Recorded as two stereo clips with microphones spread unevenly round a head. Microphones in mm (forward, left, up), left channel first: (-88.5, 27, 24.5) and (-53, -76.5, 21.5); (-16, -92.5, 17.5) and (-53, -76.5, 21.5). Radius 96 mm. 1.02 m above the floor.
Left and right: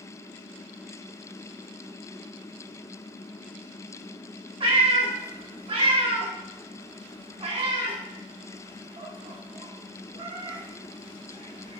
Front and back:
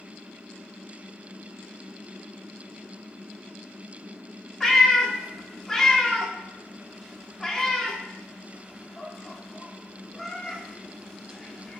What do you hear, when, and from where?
4.6 s a cat meowing: 105° right, 1.0 m